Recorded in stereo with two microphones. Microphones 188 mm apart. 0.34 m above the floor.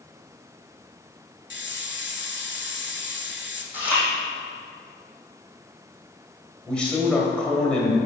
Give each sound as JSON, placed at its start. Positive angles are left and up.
{"t": 1.5, "sound": "a hiss", "side_deg": 70, "distance_m": 1.0}
{"t": 3.7, "sound": "chewing", "side_deg": -10, "distance_m": 3.0}
{"t": 6.7, "sound": "a man speaking", "side_deg": 5, "distance_m": 1.9}